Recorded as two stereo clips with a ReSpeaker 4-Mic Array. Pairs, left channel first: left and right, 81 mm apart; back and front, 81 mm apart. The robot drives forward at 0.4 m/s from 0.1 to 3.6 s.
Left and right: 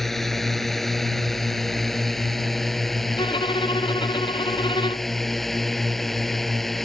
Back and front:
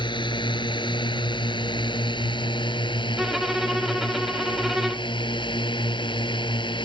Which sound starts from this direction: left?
A violin, at 3.2 s.